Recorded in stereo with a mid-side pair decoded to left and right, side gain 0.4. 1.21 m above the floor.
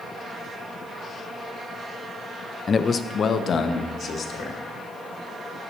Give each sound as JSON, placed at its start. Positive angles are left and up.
{"t": 2.7, "sound": "a man speaking", "azimuth_deg": 40, "distance_m": 0.5}